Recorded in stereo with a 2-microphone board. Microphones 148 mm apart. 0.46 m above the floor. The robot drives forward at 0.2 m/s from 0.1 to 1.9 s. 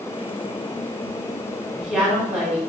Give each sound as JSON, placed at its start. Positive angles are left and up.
{"t": 1.7, "sound": "a woman speaking", "side_deg": -10, "distance_m": 1.4}